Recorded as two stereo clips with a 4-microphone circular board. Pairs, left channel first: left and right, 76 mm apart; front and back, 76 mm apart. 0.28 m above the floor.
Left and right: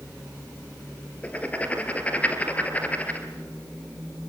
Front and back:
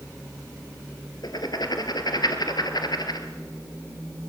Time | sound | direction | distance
1.2 | writing | 20° left | 2.5 m